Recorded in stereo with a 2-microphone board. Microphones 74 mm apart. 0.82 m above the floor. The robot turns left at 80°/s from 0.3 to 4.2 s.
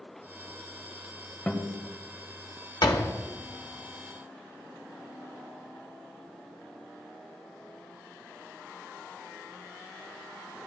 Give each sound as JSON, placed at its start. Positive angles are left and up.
{"t": 1.5, "sound": "a guitar", "side_deg": 15, "distance_m": 1.3}
{"t": 2.8, "sound": "a door slam", "side_deg": 70, "distance_m": 0.9}